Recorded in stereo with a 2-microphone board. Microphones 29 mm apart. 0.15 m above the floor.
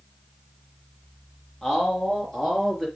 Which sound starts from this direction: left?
A man speaking, at 1.6 s.